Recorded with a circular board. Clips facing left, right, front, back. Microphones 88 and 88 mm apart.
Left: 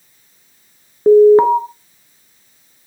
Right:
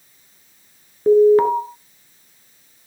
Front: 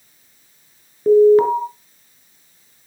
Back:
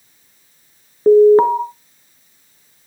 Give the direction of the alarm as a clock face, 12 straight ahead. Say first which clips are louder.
Left 5 dB, back 2 dB; 7 o'clock.